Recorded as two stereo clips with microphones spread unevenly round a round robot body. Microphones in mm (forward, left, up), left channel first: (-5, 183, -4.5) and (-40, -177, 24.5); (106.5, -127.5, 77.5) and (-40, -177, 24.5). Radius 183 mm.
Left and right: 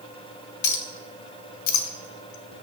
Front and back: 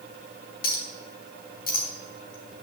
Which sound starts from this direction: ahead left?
A clink, at 0.6 s.